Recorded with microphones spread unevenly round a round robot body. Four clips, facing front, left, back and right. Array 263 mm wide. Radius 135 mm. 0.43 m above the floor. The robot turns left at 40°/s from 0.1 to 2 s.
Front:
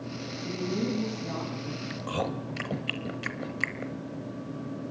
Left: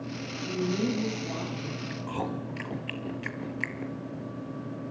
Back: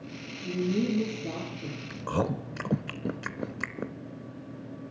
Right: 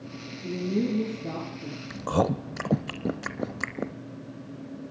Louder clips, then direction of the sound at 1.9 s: Right 9 dB, back 3 dB; 105° right.